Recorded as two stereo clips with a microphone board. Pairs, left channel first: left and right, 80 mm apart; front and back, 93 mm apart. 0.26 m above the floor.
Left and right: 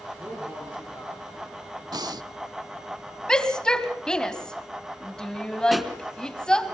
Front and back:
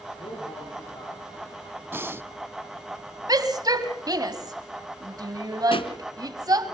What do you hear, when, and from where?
0.2 s a man speaking: 20° right, 7 m
1.9 s breathing: 115° right, 0.5 m
3.3 s a shout: 165° left, 1.9 m
5.7 s a pop: straight ahead, 1.4 m